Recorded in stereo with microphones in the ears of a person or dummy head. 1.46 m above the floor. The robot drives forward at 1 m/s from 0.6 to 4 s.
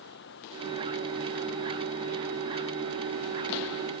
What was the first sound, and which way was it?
Running water, 70° left (ahead or behind).